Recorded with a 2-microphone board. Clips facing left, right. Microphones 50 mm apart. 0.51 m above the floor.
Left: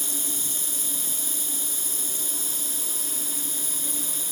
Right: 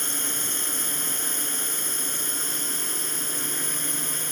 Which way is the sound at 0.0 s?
50° right (ahead or behind).